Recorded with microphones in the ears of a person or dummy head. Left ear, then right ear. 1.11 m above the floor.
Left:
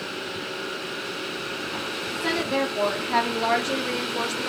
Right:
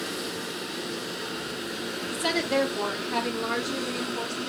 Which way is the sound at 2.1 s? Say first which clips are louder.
Even; 35° right (ahead or behind).